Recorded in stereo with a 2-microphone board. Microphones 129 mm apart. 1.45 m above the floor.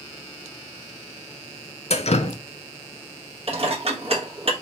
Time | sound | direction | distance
1.9 | dripping | 60° left (ahead or behind) | 0.6 m
3.5 | dishes clattering | 55° right (ahead or behind) | 1.2 m